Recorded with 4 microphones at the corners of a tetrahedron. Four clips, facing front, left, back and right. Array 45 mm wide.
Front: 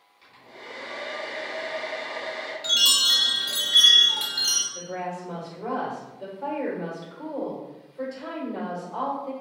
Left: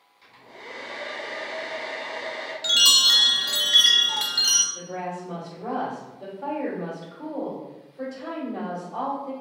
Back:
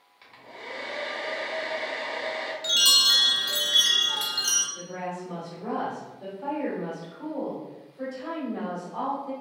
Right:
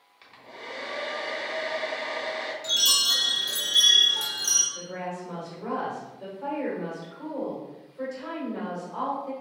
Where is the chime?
75° left, 0.8 m.